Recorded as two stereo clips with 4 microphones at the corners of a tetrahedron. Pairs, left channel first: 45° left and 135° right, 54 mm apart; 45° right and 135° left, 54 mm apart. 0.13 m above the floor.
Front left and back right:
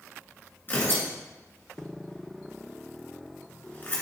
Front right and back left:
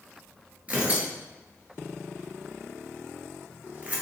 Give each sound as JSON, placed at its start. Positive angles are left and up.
{"t": 0.7, "sound": "tearing paper", "azimuth_deg": 80, "distance_m": 1.5}